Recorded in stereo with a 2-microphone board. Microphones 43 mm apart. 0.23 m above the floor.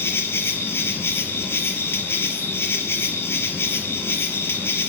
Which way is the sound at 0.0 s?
70° left (ahead or behind).